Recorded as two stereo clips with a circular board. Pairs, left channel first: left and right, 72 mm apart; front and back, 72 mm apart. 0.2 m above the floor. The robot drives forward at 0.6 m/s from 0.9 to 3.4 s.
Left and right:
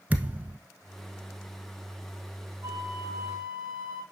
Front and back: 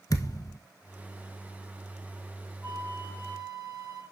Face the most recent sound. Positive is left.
turn(degrees=-150)